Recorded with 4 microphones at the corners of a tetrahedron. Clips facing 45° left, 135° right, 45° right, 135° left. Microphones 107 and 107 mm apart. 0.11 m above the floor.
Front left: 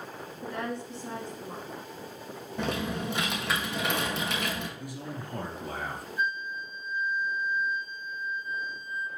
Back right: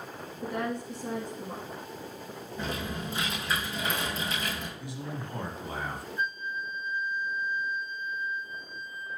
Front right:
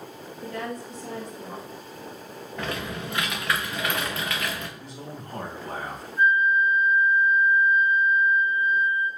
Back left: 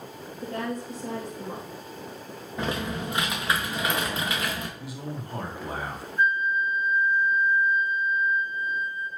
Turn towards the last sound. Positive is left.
turn(degrees=125)